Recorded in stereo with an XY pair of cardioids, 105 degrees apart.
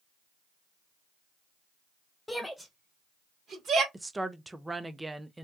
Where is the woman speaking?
15° right, 0.5 m.